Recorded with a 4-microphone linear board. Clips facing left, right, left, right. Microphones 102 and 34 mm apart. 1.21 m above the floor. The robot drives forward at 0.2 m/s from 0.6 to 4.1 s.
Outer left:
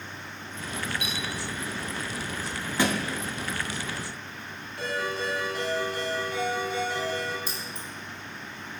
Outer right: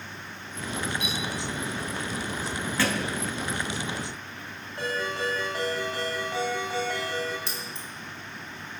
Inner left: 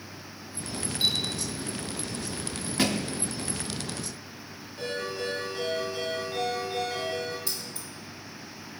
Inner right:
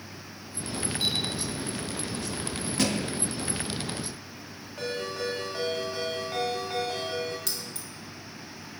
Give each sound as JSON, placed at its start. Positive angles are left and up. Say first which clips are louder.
{"t": 1.0, "sound": "a clink", "louder": "outer right 2 dB, inner left 3 dB", "side_deg": 25, "distance_m": 2.0}
{"t": 2.8, "sound": "a thud", "louder": "outer left 2 dB, inner left 1 dB", "side_deg": 15, "distance_m": 0.6}
{"t": 4.8, "sound": "a ringtone", "louder": "outer right 1 dB, even", "side_deg": -60, "distance_m": 3.5}
{"t": 7.5, "sound": "keys jangling", "louder": "even, even", "side_deg": -75, "distance_m": 1.4}